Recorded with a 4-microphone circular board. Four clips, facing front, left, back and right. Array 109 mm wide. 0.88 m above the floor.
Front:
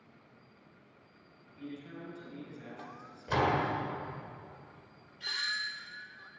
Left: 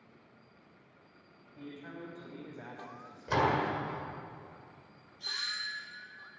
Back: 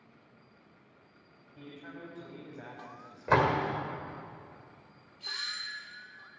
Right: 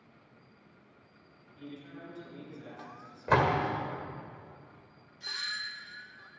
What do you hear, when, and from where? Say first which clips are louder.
1.6 s a man speaking: left 1 dB, front 2 dB; 140° left, 5 m
3.3 s a door slam: right 3 dB, back 3 dB; 135° right, 1.8 m
5.2 s a doorbell: right 1 dB, front 4 dB; 20° right, 4.5 m